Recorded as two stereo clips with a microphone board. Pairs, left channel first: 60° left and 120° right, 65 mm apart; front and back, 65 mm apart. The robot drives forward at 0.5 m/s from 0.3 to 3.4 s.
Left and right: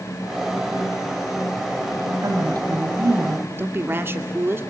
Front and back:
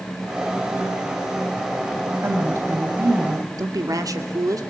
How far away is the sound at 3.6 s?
About 1.9 m.